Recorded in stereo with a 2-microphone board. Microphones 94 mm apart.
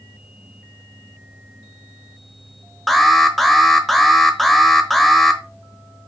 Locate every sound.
2.9 s an alarm: centre (ahead or behind), 1.0 m